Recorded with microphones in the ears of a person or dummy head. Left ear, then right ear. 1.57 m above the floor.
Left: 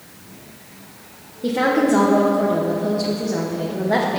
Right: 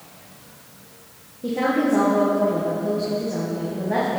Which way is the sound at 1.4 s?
25° left (ahead or behind).